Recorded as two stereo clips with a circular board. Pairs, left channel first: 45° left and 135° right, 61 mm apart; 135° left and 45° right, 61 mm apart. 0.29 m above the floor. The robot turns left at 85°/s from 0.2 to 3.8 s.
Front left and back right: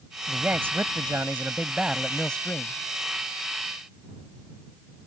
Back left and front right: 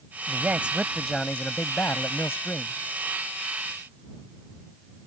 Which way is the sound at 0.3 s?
70° right.